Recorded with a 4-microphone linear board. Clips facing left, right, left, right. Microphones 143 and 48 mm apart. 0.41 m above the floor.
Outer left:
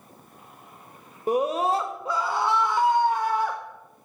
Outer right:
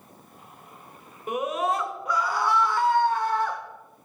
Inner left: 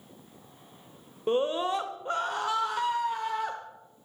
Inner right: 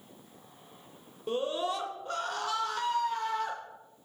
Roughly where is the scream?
Left.